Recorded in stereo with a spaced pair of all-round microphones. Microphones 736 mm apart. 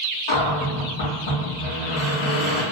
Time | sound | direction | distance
0.3 | a cupboard door | 35° left (ahead or behind) | 1.4 m